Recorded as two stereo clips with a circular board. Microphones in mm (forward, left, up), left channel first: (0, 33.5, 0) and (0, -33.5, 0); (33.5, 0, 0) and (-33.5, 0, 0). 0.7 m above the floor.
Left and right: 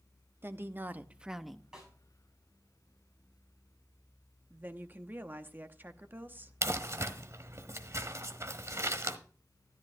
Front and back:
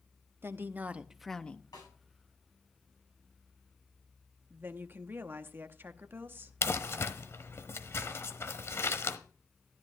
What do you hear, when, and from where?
0.4 s a woman speaking: 135° right, 0.9 m; by 1.6 s 15° left, 0.6 m
1.7 s a snare drum: 10° right, 6 m
4.5 s a woman speaking: 135° right, 0.9 m
6.6 s crumpling: 45° right, 1.0 m